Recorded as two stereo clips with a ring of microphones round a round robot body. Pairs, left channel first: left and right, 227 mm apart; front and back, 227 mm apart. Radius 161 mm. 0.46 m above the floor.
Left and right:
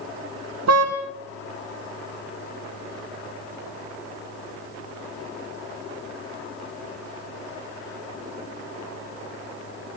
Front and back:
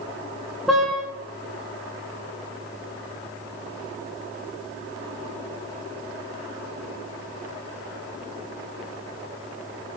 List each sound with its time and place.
0.7 s a car horn: 90° right, 2.5 m